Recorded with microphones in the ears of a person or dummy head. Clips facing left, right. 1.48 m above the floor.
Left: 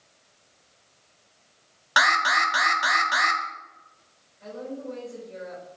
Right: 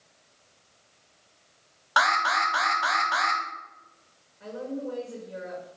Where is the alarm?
20° left (ahead or behind), 0.7 m.